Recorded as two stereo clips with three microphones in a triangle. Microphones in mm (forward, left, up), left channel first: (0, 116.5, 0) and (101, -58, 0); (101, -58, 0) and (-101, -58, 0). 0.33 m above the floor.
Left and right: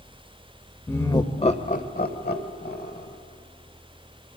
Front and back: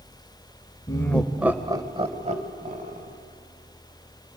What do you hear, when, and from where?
0.9 s laughter: 50° left, 0.9 m; by 3.2 s 145° left, 1.9 m